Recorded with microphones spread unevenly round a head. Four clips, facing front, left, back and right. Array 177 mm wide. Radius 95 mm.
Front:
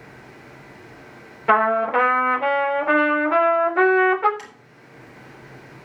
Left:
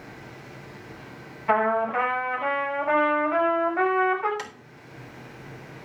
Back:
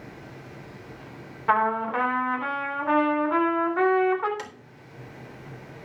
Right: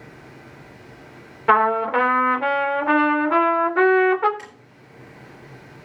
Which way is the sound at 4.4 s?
155° left.